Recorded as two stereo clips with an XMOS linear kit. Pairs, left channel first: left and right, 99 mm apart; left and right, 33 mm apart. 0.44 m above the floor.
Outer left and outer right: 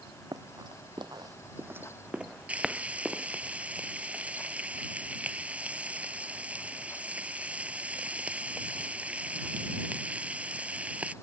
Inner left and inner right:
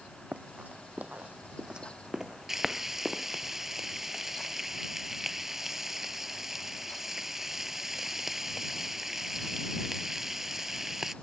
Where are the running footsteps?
40° right (ahead or behind); by 3.5 s centre (ahead or behind).